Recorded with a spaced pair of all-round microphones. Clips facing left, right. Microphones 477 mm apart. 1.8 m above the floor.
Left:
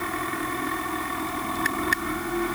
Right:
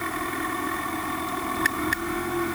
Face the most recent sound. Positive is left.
No sound to turn to.